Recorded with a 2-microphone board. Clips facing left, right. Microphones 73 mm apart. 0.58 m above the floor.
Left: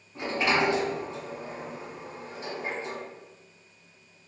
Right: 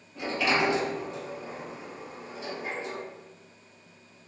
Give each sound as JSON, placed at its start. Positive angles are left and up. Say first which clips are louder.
{"t": 0.1, "sound": "a sliding door", "louder": "left 1 dB", "side_deg": 40, "distance_m": 1.3}